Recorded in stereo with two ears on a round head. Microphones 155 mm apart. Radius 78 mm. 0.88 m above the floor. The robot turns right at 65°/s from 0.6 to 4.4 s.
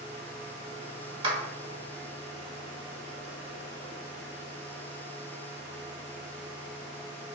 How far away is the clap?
About 1.0 m.